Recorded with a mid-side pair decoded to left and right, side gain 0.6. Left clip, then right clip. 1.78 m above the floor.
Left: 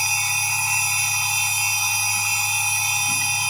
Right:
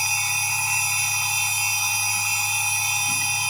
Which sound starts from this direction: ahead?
A machine running, at 0.0 s.